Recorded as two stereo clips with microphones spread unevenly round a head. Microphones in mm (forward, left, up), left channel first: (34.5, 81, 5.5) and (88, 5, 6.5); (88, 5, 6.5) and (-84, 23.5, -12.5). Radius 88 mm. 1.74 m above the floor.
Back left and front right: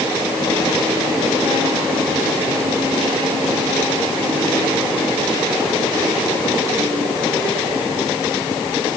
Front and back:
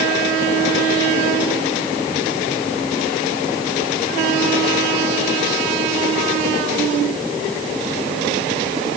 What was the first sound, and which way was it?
Only background noise.